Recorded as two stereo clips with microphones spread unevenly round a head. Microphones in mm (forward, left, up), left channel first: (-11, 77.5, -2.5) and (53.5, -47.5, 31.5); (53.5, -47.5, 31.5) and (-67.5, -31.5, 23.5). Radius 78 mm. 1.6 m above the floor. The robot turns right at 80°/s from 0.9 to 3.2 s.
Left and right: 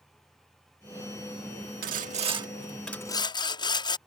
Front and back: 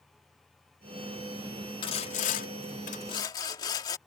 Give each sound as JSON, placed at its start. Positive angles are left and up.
{"t": 1.8, "sound": "sawing", "azimuth_deg": -55}